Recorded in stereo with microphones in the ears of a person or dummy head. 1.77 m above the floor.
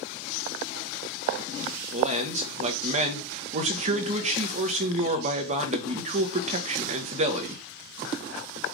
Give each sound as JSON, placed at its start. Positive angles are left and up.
{"t": 1.9, "sound": "a man speaking", "side_deg": -45, "distance_m": 1.4}